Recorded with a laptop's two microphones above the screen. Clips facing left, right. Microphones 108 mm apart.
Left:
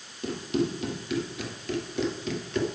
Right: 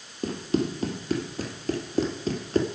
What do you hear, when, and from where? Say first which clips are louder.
0.2 s running footsteps: right 1 dB; 40° right (ahead or behind), 2.5 m